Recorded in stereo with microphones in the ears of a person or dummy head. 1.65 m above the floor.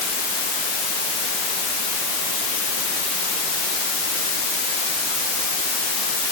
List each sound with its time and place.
Only background noise.